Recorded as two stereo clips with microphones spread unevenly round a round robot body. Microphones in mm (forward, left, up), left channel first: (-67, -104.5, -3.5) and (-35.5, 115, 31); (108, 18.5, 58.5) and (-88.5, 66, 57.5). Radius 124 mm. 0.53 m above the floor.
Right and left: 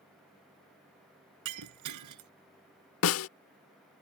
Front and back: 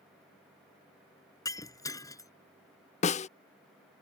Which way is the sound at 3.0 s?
75° right.